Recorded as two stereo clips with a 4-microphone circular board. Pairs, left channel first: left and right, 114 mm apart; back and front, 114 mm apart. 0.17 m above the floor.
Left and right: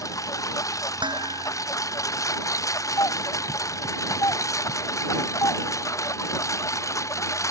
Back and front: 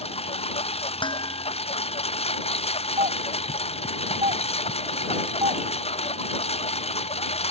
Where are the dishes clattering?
135° right.